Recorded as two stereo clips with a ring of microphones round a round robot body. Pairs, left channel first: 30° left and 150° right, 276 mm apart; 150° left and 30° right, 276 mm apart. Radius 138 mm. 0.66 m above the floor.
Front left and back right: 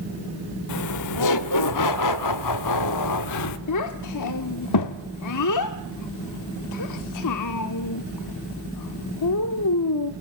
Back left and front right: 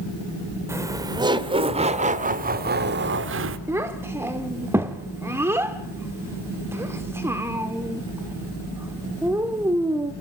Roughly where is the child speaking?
Ahead left.